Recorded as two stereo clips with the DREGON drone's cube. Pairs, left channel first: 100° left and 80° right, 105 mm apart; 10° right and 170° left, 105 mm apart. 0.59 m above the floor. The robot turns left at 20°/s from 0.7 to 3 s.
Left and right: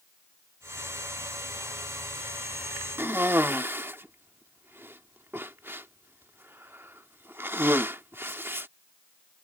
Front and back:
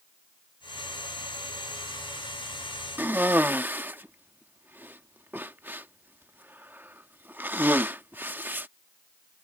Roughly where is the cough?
Behind right.